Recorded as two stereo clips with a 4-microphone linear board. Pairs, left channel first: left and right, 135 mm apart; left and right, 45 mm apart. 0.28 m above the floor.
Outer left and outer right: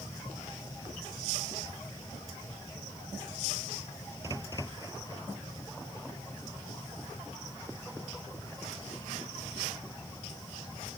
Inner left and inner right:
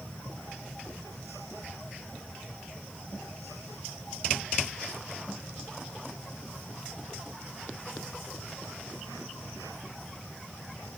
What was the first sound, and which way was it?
Only background noise.